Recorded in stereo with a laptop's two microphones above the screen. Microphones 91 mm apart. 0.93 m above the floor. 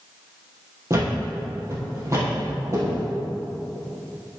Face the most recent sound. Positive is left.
turn(degrees=-30)  # may be behind; listen again after turning